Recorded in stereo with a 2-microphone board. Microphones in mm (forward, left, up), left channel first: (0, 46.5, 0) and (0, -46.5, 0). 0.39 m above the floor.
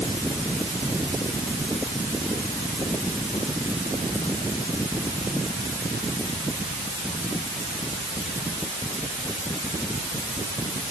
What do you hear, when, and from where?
Only background noise.